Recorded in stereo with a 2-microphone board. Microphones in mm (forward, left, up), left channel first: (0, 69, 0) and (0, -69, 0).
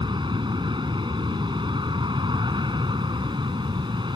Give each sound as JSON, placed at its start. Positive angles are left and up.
{"t": 0.0, "sound": "an aircraft", "side_deg": -35}